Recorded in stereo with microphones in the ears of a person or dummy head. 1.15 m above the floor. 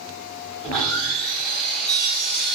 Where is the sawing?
5° left (ahead or behind), 1.2 m.